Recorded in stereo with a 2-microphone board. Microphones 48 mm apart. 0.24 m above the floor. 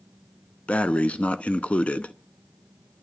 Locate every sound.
0.7 s breathing: 25° left (ahead or behind), 0.6 m